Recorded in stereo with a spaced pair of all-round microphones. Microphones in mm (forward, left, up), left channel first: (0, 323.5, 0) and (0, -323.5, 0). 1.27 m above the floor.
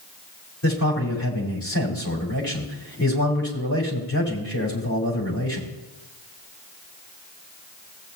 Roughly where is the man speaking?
Left.